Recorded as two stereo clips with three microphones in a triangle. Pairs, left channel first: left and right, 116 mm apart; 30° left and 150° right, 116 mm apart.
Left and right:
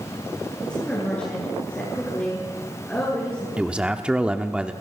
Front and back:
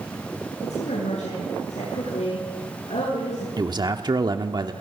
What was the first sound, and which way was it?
A woman speaking, 10° left.